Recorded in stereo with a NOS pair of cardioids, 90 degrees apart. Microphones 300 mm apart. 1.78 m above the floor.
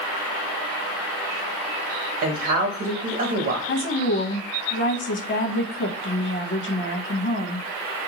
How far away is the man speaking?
About 0.7 m.